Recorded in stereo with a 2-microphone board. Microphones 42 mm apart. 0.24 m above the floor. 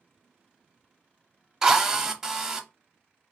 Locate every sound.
1.6 s a drill: 10° right (ahead or behind), 0.6 m